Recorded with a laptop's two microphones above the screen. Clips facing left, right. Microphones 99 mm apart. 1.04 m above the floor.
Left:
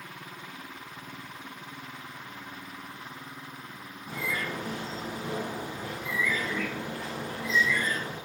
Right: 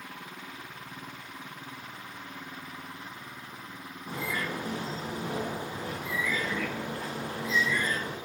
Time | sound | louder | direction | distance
4.1 | a bird | even | 40° right (ahead or behind) | 6 m